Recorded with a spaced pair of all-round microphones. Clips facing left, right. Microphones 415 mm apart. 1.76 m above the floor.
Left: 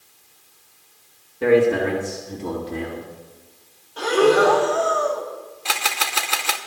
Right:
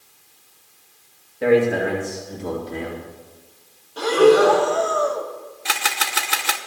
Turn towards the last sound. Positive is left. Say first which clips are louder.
# even
turn(degrees=-30)  # may be behind; listen again after turning